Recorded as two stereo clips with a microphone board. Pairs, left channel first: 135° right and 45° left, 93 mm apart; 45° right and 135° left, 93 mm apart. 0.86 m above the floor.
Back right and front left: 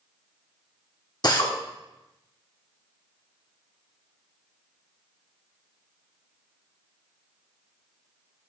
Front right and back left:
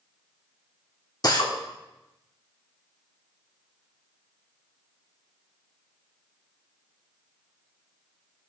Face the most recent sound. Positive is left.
turn(degrees=-90)